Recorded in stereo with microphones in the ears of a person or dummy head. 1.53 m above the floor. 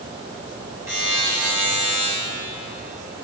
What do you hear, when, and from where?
0.9 s a buzzer: 10° right (ahead or behind), 4 m